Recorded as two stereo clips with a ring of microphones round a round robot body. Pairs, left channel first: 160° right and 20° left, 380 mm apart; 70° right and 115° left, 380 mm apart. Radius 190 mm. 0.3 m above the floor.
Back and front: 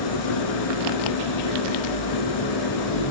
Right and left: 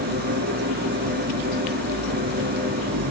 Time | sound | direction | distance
0.0 | an engine running | straight behind | 3 m